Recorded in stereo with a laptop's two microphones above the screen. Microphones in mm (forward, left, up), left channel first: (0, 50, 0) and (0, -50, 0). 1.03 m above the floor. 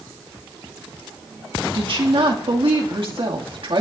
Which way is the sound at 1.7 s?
65° right (ahead or behind).